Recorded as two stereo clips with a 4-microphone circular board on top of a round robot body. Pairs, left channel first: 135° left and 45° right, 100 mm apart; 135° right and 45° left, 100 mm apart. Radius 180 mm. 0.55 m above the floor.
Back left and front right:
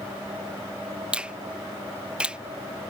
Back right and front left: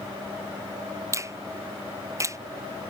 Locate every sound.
1.1 s a finger snap: 25° left